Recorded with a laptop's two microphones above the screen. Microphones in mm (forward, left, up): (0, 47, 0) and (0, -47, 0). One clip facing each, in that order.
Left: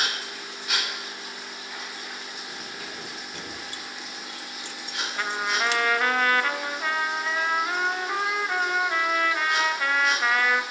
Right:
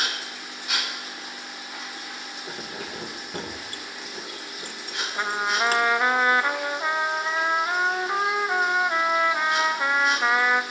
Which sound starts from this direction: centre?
A trumpet, at 5.2 s.